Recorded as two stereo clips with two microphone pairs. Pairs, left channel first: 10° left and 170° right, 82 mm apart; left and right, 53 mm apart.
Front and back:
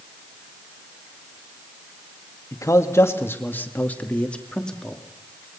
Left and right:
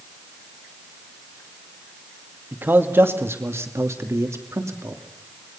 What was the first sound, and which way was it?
A man speaking, 40° right.